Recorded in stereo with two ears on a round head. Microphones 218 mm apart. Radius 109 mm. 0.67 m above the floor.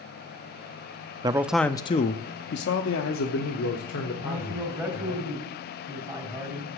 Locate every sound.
1.2 s a man speaking: 20° right (ahead or behind), 0.6 m; by 5.2 s 70° left (ahead or behind), 2.5 m
4.2 s a man speaking: 10° right (ahead or behind), 4 m